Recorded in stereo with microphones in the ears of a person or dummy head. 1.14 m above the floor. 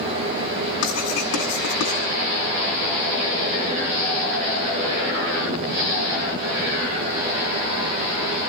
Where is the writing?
75° left (ahead or behind), 8.5 m.